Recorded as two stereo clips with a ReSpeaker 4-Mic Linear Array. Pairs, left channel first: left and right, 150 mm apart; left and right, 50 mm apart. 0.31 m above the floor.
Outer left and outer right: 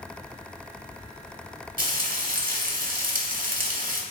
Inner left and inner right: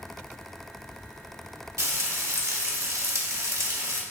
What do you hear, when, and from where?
1.8 s frying: 65° right (ahead or behind), 0.5 m